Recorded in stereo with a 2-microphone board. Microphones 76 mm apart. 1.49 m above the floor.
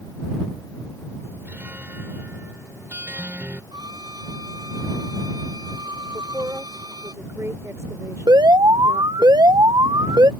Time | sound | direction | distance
1.4 | a guitar | 25° right (ahead or behind) | ?
3.7 | a violin | 65° right (ahead or behind) | ?
6.1 | a woman speaking | 40° right (ahead or behind) | ?
8.3 | an alarm | 70° right (ahead or behind) | ?